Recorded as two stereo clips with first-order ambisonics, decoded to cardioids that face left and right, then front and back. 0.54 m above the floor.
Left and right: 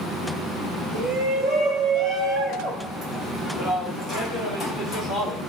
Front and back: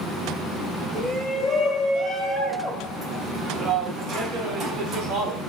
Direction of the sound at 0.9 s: 70° right.